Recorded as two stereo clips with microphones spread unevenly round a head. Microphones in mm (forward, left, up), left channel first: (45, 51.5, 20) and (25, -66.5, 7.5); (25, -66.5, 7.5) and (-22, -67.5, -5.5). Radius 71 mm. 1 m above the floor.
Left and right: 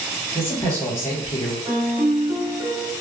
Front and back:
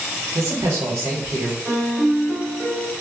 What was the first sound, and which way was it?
A man speaking, 155° left.